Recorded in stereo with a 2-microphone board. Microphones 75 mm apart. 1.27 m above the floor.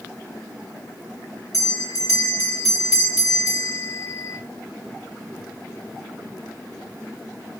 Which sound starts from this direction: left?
A bell, at 1.5 s.